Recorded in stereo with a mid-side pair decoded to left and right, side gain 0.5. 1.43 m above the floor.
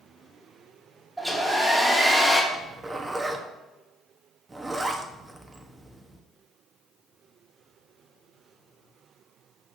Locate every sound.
1.2 s a hair dryer: 10° right, 2 m
2.5 s a zipper: 25° right, 1.1 m